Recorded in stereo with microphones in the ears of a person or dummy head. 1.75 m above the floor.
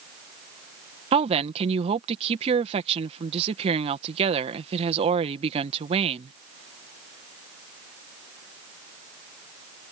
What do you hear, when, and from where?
1.1 s a woman speaking: 35° right (ahead or behind)